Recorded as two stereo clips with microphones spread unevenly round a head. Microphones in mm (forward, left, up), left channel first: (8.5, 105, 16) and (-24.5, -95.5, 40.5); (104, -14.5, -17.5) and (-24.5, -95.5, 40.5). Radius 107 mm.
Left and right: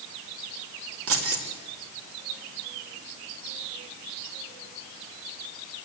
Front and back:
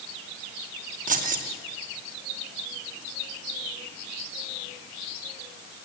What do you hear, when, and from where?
1.1 s keys jangling: 120° right, 2.5 m